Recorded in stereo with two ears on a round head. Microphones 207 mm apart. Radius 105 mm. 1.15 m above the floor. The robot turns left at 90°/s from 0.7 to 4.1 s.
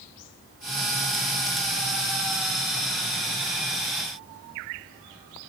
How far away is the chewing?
No chewing in this recording.